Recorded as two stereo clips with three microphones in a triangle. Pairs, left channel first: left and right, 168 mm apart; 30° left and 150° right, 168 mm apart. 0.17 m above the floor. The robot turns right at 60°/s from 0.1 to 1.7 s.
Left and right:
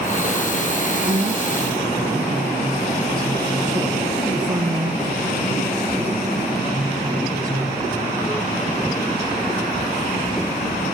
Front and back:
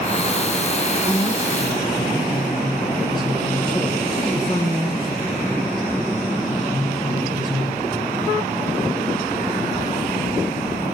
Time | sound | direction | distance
1.1 | a man speaking | 70° right | 2.5 m